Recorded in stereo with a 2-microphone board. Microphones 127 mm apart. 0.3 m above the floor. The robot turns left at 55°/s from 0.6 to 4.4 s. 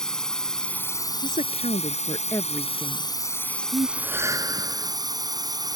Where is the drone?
175° left; by 5.8 s 35° right.